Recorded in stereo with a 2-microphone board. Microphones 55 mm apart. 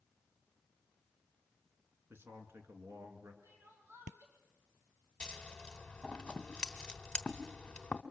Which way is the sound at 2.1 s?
50° right (ahead or behind).